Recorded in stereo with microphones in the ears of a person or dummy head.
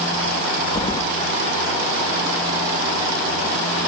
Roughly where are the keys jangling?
Centre.